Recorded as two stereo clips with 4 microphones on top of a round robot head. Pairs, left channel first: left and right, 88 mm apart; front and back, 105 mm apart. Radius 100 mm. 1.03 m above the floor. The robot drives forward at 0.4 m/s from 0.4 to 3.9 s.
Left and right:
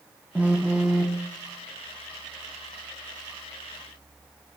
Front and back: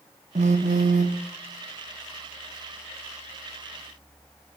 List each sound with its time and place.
0.3 s a phone buzzing: 170° right, 0.6 m; by 1.2 s 175° right, 0.9 m